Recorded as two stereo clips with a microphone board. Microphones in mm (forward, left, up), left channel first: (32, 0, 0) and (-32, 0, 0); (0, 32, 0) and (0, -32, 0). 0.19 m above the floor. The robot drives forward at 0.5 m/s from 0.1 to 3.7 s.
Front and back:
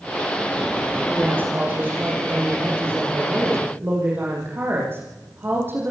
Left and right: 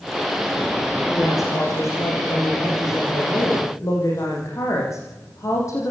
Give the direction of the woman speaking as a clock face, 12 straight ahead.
8 o'clock.